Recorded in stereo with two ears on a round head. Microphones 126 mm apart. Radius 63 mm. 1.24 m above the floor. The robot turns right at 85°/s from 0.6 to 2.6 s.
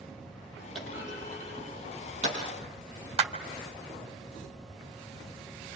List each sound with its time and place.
0.8 s a clunk: centre (ahead or behind), 8 m; by 2.4 s 40° right (ahead or behind), 8 m
3.2 s a clap: 45° right (ahead or behind), 1.8 m